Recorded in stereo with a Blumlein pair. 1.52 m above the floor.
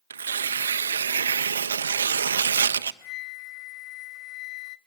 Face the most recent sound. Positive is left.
turn(degrees=35)